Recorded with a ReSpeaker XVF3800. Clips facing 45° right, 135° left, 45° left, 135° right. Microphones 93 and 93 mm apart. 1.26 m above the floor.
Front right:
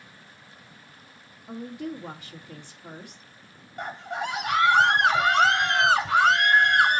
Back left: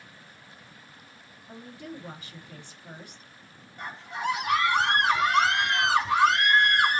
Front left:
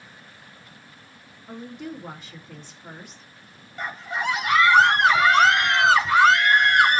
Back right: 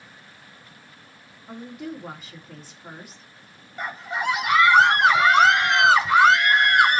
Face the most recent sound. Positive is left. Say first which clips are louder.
# front right 2 dB, even
turn(degrees=-50)